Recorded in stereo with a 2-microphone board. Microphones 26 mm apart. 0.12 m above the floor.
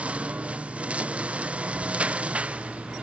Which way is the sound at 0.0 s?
55° right (ahead or behind).